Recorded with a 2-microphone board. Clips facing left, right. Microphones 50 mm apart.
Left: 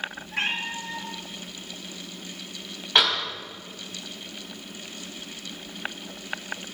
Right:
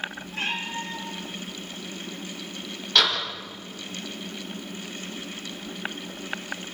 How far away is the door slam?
About 5 m.